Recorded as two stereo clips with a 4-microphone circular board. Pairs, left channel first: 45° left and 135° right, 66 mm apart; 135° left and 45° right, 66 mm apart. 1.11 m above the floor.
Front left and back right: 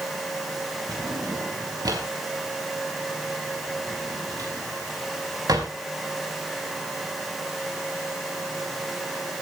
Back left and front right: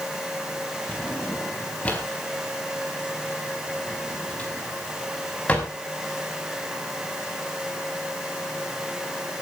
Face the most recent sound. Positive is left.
turn(degrees=-160)